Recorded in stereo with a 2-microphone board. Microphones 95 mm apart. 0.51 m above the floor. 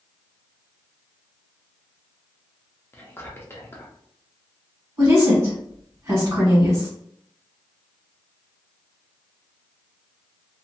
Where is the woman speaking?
35° right (ahead or behind), 1.9 m.